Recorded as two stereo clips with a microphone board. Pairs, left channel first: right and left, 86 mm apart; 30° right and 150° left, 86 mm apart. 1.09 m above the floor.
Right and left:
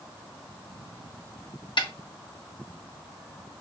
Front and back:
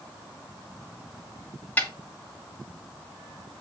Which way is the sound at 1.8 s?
105° right.